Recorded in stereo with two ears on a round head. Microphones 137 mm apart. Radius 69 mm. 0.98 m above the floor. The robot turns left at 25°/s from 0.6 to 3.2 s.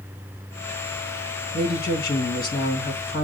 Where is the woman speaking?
100° left, 1.5 m; by 3.3 s 60° left, 1.5 m.